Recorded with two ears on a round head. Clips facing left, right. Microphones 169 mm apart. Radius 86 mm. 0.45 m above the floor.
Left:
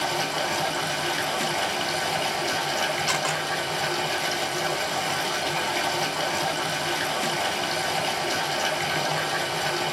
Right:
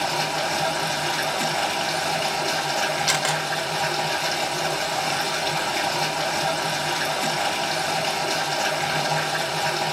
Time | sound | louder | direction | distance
0.0 | running water | right 2 dB | 10° left (ahead or behind) | 1.5 m
3.1 | a camera shutter | right 2 dB | 15° right (ahead or behind) | 0.9 m